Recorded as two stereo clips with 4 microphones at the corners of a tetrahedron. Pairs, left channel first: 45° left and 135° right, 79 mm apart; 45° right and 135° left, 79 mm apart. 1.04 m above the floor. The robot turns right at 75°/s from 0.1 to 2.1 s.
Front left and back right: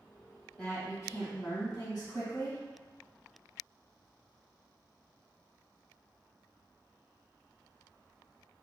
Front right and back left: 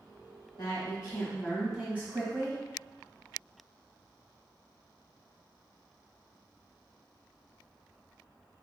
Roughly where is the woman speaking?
Ahead right.